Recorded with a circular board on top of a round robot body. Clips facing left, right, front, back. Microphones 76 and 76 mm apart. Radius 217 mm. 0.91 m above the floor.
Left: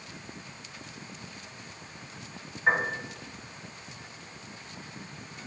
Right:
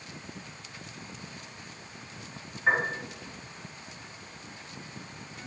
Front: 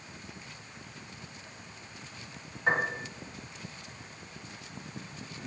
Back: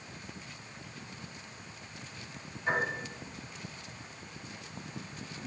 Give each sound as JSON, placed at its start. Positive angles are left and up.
{"t": 2.7, "sound": "a piano", "azimuth_deg": 10, "distance_m": 4.0}